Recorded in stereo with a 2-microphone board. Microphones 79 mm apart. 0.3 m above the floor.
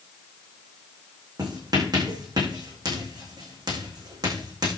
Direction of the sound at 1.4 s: 55° right (ahead or behind).